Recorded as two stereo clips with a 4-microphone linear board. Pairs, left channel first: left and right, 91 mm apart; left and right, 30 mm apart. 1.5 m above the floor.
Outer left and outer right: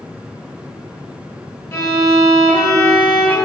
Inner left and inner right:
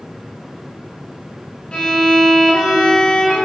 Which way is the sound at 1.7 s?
35° left (ahead or behind).